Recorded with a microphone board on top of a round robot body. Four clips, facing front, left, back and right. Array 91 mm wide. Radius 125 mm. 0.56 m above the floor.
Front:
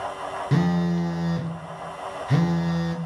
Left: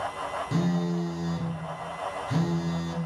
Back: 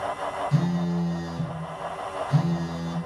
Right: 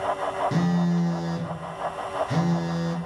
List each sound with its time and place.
0.5 s a phone buzzing: 20° right, 0.7 m